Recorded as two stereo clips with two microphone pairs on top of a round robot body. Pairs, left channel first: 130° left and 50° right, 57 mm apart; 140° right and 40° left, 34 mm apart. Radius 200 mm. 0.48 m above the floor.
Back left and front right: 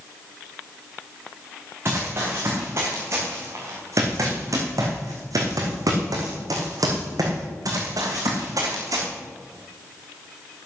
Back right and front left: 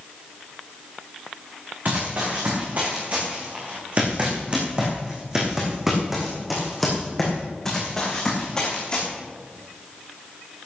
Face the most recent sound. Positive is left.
turn(degrees=-70)